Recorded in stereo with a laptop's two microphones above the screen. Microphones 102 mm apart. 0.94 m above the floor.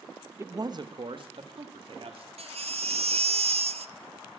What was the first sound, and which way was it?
A man speaking, 25° right (ahead or behind).